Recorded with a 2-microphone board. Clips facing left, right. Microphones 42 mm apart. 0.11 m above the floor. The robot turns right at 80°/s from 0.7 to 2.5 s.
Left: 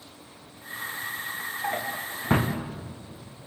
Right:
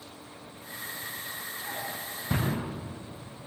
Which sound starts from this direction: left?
A drawer, at 1.6 s.